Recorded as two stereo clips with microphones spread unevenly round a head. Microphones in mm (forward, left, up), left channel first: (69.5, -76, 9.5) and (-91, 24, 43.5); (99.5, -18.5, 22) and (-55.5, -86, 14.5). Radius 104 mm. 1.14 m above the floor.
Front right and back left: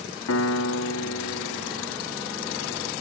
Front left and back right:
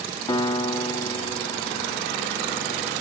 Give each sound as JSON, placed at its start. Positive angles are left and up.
{"t": 0.3, "sound": "a piano", "azimuth_deg": -35, "distance_m": 0.8}